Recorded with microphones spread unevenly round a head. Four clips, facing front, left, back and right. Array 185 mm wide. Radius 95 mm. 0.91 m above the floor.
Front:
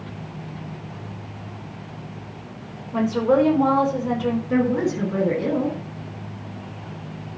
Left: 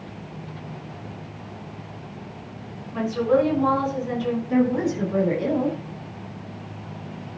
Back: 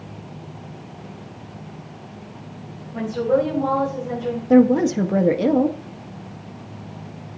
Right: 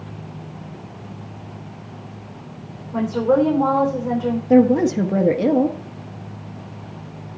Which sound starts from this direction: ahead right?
A woman speaking, at 2.9 s.